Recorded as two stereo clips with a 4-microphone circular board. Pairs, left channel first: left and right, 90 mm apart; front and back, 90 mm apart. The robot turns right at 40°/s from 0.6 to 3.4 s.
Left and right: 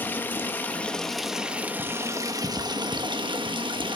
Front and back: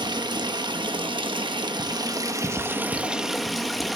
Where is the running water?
155° left, 1.1 m; by 4.0 s 90° right, 1.1 m.